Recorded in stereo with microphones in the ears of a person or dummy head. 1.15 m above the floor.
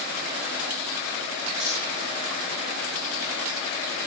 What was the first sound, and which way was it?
Cutlery clinking, 35° right (ahead or behind).